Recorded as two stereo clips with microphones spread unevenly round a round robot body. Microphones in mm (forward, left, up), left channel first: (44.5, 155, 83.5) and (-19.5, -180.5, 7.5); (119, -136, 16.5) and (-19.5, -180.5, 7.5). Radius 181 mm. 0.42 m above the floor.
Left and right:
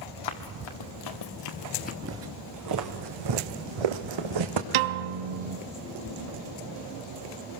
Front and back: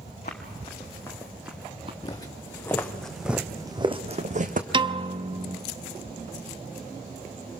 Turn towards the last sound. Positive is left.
turn(degrees=-100)